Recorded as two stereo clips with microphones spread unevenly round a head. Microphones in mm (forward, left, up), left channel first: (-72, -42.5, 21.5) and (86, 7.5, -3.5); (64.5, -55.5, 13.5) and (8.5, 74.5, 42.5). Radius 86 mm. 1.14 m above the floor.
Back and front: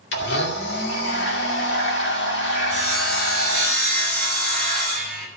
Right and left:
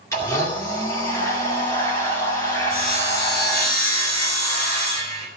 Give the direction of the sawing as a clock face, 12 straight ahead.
4 o'clock.